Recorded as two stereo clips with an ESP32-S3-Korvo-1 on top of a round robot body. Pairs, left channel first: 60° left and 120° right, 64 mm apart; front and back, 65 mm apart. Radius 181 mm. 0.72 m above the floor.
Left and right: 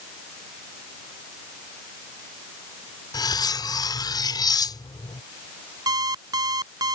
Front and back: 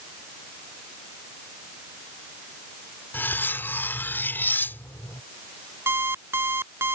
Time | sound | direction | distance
3.1 | cutlery clinking | 60° left | ?
5.9 | an alarm clock | 125° right | ?